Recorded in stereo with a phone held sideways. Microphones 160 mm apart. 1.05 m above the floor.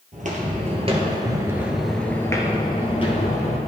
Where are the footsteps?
55° right (ahead or behind), 1.6 m; by 3.6 s 45° left (ahead or behind), 1.9 m.